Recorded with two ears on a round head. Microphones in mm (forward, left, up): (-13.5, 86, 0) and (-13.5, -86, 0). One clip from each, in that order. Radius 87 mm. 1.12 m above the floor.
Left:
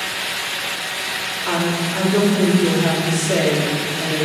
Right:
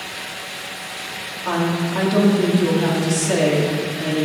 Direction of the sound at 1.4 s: 80° right.